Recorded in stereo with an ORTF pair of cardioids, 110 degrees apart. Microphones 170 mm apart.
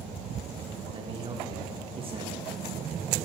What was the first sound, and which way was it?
A man speaking, 35° right.